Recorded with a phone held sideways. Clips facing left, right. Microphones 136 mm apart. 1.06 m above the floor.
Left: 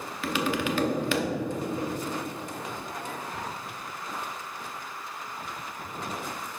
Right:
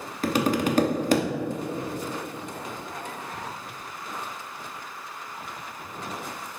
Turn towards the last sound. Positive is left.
turn(degrees=-40)  # may be behind; listen again after turning